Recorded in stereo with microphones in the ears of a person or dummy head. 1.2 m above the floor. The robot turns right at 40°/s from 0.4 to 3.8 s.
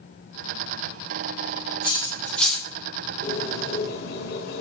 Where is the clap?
No clap in this recording.